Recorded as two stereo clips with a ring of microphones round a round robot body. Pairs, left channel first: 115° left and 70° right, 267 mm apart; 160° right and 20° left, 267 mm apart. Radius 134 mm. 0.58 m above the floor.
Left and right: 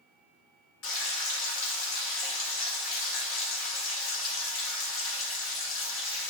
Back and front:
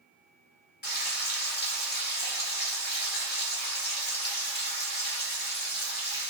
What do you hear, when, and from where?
0.8 s frying: 150° left, 1.7 m